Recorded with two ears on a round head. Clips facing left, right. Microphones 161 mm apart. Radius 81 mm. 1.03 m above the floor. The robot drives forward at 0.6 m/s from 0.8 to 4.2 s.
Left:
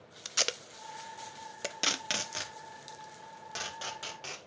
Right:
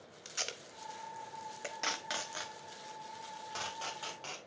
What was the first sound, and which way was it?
Tape being pulled, 65° left (ahead or behind).